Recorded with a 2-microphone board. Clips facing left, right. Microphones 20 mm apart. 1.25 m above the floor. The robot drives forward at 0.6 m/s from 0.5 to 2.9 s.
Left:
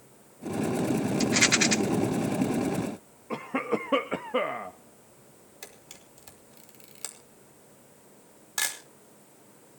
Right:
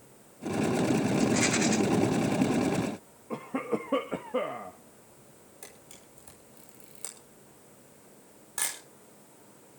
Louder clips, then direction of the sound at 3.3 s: Left 3 dB; 60° left (ahead or behind).